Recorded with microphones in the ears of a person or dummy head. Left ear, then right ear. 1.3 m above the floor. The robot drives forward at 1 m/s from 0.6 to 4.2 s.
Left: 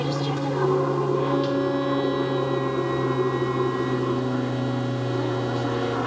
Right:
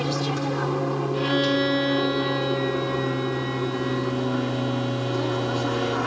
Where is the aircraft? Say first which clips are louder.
Even; 15° right (ahead or behind); by 6.1 s 20° right (ahead or behind).